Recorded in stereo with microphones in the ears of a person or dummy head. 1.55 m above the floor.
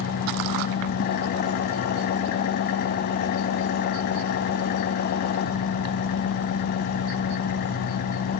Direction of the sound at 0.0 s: 55° left (ahead or behind).